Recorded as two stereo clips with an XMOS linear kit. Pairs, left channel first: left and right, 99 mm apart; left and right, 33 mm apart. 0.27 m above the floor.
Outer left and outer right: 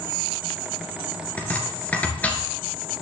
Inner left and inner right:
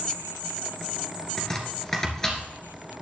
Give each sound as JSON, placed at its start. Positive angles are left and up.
{"t": 1.4, "sound": "chopping", "side_deg": 15, "distance_m": 3.0}